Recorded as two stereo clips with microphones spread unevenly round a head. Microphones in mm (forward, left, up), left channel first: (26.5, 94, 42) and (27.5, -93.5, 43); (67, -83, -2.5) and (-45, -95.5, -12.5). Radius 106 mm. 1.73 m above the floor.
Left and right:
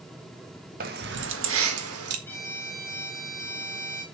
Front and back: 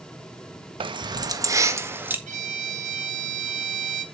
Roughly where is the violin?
Behind.